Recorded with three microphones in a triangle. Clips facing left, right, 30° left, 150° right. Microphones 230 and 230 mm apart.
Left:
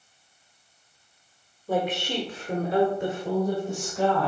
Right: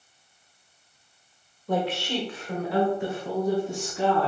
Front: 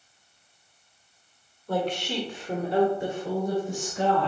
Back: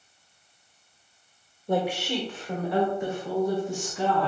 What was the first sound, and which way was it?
A woman speaking, 165° left.